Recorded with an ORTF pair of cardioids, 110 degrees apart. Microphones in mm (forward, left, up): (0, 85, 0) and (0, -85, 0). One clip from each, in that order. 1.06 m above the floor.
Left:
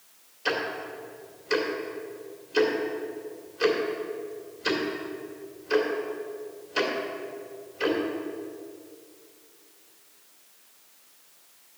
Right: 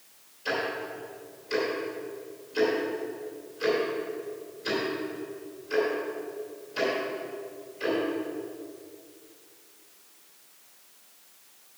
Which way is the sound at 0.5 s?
50° left.